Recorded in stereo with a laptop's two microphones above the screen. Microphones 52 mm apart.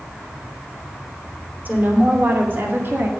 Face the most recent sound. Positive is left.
turn(degrees=-50)  # may be behind; listen again after turning